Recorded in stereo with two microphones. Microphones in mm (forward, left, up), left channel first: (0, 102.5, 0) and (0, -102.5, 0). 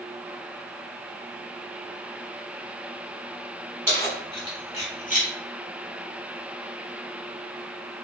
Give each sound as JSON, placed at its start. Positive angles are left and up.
{"t": 3.9, "sound": "keys jangling", "side_deg": 10, "distance_m": 1.2}